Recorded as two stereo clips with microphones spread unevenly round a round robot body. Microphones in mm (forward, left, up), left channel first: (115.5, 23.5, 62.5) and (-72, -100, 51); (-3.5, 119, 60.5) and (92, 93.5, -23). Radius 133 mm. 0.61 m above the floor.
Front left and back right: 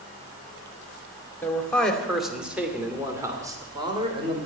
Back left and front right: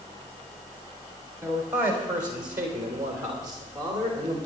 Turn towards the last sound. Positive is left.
turn(degrees=-85)